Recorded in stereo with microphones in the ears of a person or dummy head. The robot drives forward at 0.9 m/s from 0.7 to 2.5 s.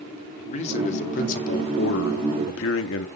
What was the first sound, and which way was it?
A man speaking, 40° left (ahead or behind).